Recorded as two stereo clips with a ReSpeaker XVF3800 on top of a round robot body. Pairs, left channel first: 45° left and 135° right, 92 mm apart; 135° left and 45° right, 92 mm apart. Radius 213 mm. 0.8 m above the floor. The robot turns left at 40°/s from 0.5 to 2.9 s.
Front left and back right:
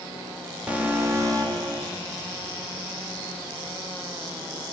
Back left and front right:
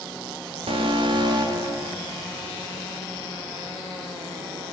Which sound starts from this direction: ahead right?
An alarm, at 0.7 s.